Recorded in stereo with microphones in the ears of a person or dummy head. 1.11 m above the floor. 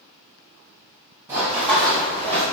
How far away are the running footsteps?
About 1.9 m.